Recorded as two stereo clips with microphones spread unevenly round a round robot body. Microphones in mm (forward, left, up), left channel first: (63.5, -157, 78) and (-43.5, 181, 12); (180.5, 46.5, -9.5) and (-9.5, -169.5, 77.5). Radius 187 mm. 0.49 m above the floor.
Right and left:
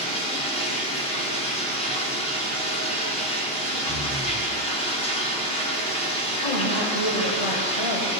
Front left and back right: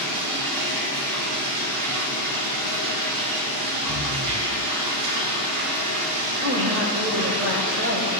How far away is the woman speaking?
About 2 m.